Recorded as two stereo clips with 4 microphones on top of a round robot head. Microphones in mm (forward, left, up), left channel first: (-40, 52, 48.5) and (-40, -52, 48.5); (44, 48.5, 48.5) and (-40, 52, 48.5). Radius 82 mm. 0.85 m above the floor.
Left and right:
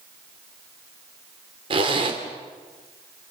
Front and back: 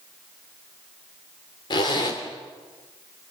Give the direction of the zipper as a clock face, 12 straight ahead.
2 o'clock.